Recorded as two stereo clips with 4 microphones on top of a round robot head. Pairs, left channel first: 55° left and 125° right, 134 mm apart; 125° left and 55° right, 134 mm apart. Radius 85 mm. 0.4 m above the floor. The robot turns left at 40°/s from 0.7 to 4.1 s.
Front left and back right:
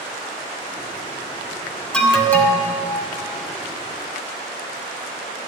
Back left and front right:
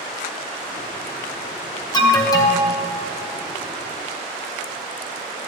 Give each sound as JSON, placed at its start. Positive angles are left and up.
{"t": 1.9, "sound": "an alarm", "azimuth_deg": 140, "distance_m": 1.9}